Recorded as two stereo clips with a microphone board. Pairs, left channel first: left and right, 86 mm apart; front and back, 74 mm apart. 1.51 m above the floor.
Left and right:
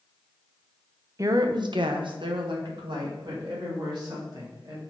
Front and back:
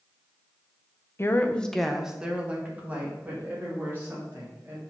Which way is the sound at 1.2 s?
45° right.